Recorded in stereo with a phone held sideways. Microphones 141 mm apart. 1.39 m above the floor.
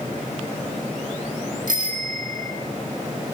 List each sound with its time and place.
1.7 s a bicycle bell: 75° right (ahead or behind), 3 m